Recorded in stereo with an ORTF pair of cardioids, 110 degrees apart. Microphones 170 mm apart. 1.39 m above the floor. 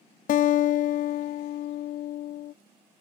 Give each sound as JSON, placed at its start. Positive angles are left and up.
{"t": 0.3, "sound": "a guitar", "azimuth_deg": 50, "distance_m": 0.5}